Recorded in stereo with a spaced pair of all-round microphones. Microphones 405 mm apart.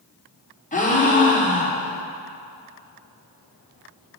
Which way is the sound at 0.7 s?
20° left (ahead or behind).